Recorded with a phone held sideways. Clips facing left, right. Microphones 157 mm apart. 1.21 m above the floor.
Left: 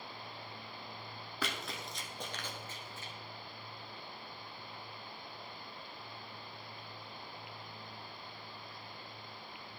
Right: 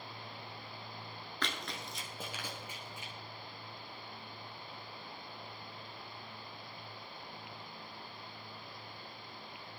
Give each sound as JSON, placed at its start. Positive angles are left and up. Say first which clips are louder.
{"t": 1.4, "sound": "running footsteps", "louder": "left 1 dB", "side_deg": 10, "distance_m": 1.2}